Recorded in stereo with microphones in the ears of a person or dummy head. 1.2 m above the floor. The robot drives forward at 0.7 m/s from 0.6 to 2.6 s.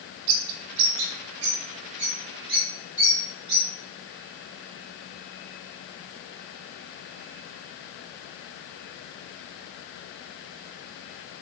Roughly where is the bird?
Right.